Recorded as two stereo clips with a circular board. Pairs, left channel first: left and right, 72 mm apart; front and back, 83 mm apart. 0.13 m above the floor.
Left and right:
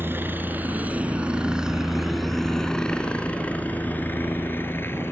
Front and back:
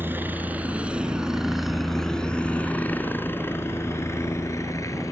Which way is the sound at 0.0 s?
130° right.